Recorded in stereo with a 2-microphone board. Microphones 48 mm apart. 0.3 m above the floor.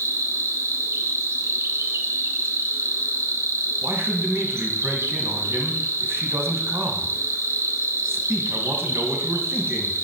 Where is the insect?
70° right (ahead or behind), 1.1 m.